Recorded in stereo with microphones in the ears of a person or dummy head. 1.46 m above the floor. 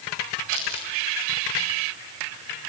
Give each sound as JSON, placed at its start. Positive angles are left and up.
{"t": 0.5, "sound": "crumpling", "side_deg": -80, "distance_m": 9.5}